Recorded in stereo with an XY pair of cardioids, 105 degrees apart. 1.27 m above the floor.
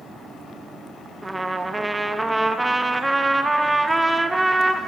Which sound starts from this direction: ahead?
A trumpet, at 1.2 s.